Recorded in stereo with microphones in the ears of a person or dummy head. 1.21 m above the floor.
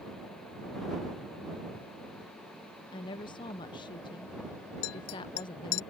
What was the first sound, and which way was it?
A woman speaking, 20° left (ahead or behind).